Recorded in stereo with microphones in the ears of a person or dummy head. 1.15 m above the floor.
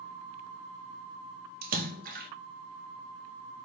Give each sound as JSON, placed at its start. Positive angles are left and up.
{"t": 1.6, "sound": "a splash", "side_deg": -45, "distance_m": 0.9}